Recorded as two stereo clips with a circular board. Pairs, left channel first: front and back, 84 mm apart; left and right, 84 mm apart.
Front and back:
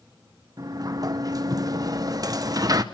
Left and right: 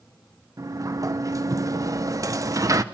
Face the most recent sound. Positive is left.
turn(degrees=-135)